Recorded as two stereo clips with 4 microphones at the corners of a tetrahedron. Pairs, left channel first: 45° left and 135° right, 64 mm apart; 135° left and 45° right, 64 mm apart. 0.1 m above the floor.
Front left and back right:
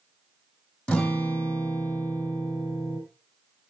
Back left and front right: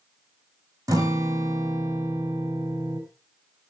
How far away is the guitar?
About 3.5 m.